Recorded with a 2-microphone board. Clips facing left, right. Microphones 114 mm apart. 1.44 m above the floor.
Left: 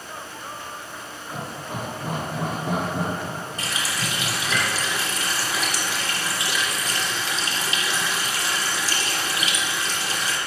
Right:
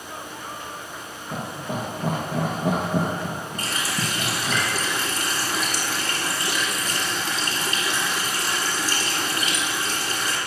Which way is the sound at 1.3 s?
85° right.